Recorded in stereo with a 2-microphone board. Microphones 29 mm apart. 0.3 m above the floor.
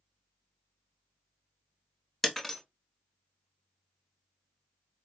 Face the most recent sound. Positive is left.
turn(degrees=5)  # may be behind; listen again after turning